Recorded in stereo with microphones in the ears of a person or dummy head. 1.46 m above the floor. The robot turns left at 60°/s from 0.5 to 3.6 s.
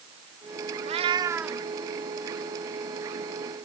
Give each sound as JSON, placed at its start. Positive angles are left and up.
{"t": 0.8, "sound": "a cat meowing", "azimuth_deg": -140}